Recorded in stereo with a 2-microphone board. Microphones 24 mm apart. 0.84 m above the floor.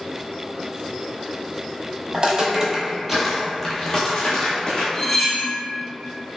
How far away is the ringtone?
No ringtone in this recording.